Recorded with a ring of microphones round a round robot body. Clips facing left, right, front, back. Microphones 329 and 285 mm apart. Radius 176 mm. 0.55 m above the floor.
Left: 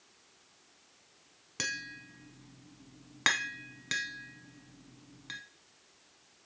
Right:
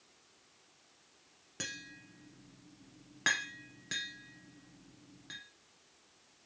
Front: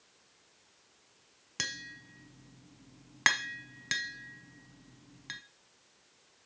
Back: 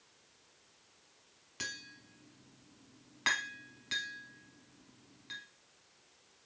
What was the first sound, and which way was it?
Tapping, 20° left.